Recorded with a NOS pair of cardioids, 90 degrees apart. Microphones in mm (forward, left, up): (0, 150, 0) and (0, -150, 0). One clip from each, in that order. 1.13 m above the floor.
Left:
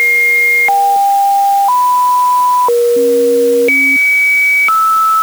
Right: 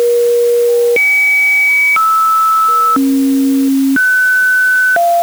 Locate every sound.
Only background noise.